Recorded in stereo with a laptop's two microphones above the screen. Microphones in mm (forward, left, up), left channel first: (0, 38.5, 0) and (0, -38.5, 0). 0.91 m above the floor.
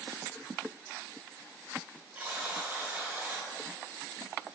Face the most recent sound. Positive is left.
turn(degrees=-20)  # may be behind; listen again after turning